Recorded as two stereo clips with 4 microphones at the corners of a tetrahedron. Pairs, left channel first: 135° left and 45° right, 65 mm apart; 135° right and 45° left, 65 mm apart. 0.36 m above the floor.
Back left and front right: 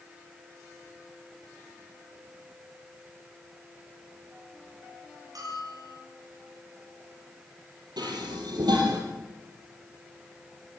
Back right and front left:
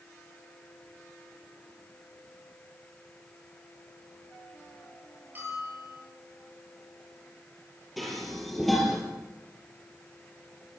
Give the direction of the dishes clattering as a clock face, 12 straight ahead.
2 o'clock.